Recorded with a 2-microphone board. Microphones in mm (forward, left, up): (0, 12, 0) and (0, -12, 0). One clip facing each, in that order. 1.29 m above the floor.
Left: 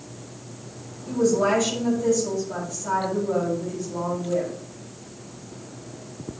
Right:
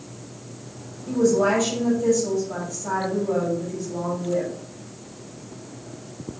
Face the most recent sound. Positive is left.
turn(degrees=-20)  # may be behind; listen again after turning